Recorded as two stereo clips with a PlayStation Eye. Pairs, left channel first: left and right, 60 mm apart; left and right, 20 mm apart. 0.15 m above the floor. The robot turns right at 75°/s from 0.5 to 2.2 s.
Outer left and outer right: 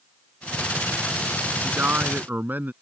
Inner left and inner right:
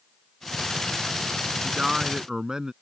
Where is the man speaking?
120° right; by 2.7 s 80° right.